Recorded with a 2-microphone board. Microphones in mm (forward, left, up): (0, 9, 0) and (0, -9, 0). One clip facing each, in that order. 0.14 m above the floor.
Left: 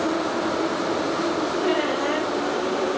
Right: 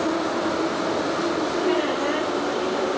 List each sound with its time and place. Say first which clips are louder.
1.6 s a squeak: even; 20° left (ahead or behind), 4.5 m